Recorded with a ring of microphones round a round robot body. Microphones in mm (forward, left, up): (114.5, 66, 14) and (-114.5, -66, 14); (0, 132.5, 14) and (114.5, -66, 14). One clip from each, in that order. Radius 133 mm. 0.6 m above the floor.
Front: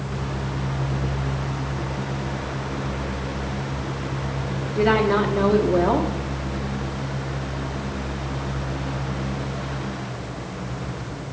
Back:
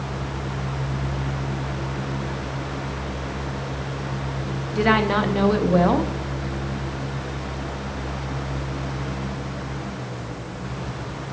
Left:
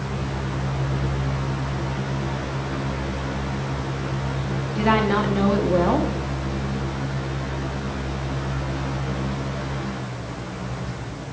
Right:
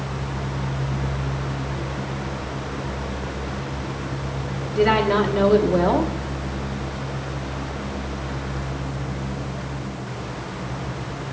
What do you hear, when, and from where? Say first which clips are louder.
4.7 s a woman speaking: even, right 2 dB; 150° right, 0.7 m